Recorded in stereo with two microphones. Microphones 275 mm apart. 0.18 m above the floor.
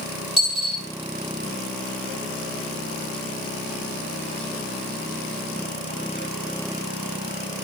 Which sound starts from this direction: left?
A dropped coin, at 0.4 s.